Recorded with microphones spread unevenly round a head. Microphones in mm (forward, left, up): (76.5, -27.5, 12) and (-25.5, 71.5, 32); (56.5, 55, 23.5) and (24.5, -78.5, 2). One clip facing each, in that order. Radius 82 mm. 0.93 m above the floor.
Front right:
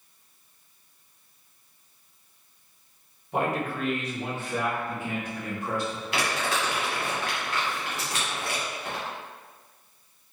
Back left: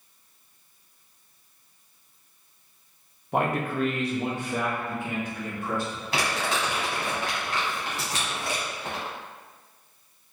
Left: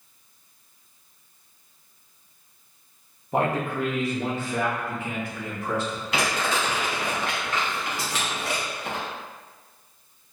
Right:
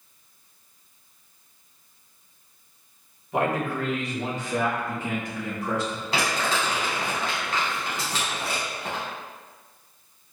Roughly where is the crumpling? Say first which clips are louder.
Back left 1 dB, even; behind.